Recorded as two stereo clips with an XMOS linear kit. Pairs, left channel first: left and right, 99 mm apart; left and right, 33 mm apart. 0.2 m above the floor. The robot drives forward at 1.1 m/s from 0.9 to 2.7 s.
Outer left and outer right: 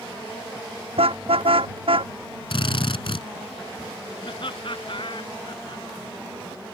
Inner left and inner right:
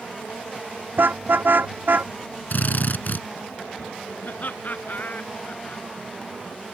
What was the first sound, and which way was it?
A car horn, 75° right (ahead or behind).